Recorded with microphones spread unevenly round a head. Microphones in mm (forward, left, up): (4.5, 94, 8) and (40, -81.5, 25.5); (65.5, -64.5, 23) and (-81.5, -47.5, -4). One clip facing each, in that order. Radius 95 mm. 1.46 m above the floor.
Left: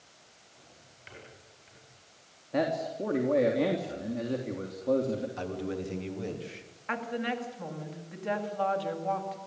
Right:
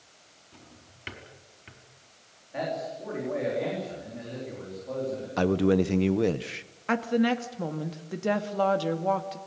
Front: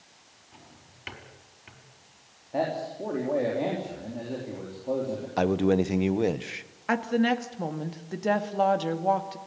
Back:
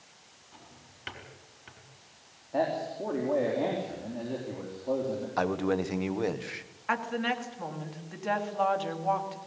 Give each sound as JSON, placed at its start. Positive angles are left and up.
{"t": 0.5, "sound": "a drawer", "azimuth_deg": -85, "distance_m": 4.5}
{"t": 2.5, "sound": "a man speaking", "azimuth_deg": 80, "distance_m": 3.5}
{"t": 5.4, "sound": "a man speaking", "azimuth_deg": -75, "distance_m": 1.2}
{"t": 6.9, "sound": "a woman speaking", "azimuth_deg": -50, "distance_m": 2.0}